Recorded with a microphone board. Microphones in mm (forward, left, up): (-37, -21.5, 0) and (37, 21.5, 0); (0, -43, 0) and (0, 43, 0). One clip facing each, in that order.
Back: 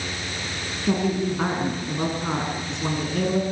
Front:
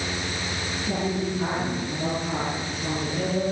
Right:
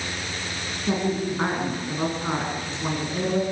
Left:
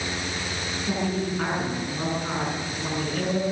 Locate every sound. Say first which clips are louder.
0.9 s a woman speaking: back 5 dB, right 3 dB; 155° right, 8.5 m